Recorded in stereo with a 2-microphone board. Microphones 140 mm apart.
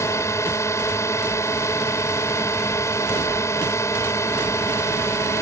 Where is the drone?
20° left (ahead or behind).